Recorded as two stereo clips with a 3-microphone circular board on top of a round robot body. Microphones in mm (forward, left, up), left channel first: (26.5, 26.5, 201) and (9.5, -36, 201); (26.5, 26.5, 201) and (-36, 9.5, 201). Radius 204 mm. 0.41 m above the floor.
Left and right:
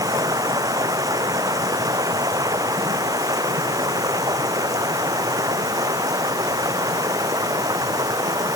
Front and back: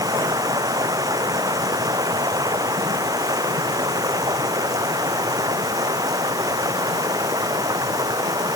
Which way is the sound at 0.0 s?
135° right.